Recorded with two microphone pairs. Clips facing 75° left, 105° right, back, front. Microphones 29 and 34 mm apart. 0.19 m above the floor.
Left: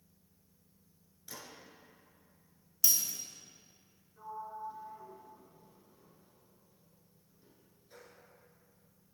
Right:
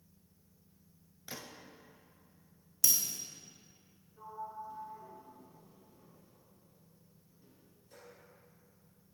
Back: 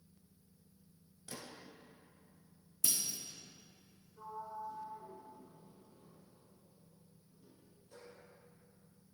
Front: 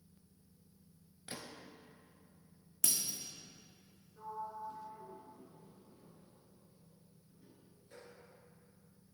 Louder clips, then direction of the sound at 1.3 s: Right 2 dB, front 1 dB; 45° right.